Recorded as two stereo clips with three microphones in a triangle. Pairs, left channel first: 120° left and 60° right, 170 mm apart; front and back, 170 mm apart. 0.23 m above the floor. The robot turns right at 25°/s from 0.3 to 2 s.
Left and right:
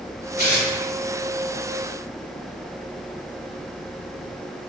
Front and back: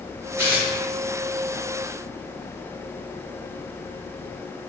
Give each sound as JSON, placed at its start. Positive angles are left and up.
{"t": 0.4, "sound": "tearing paper", "azimuth_deg": 105, "distance_m": 2.0}